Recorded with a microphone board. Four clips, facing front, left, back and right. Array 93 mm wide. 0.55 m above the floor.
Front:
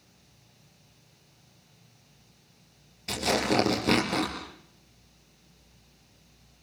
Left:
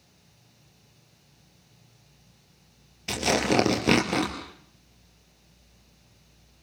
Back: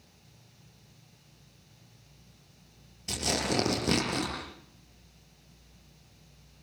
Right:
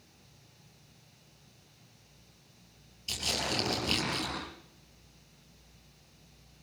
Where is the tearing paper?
75° left, 4 m.